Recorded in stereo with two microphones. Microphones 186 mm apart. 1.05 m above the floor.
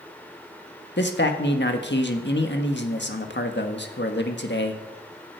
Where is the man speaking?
70° left (ahead or behind), 1.5 m.